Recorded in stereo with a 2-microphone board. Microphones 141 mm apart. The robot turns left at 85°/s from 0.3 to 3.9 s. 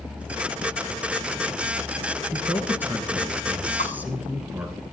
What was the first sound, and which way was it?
A man speaking, centre (ahead or behind).